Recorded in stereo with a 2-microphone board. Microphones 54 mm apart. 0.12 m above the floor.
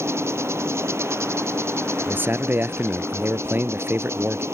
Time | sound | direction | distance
0.0 | an insect | 55° right (ahead or behind) | ?
2.0 | a man speaking | 40° right (ahead or behind) | ?